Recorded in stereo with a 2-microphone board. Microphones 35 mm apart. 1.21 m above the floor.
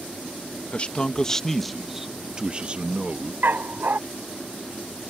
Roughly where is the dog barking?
Right.